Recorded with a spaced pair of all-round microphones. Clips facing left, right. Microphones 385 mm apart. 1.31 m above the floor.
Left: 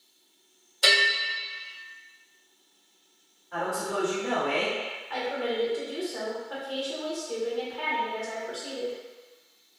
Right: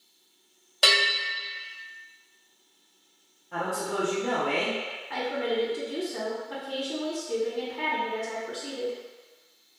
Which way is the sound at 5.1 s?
35° right (ahead or behind).